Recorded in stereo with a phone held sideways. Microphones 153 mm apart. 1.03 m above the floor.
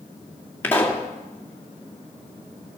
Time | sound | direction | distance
0.6 | a pop | 15° left (ahead or behind) | 2.5 m